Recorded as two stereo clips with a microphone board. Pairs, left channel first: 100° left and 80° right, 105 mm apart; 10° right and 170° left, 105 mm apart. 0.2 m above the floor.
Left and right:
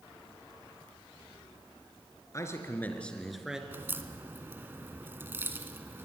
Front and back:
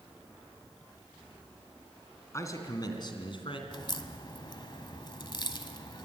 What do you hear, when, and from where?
2.3 s a man speaking: 45° left, 3 m; by 3.6 s 5° left, 2.5 m
3.7 s a crack: 20° right, 1.3 m